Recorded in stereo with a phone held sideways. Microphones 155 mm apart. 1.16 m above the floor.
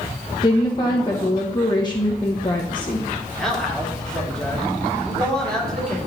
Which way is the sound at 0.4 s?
30° left (ahead or behind).